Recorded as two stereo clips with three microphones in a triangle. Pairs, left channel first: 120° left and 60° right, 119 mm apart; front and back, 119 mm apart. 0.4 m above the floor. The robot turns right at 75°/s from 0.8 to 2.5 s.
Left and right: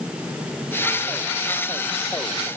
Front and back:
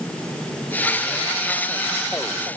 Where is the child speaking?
I don't hear a child speaking.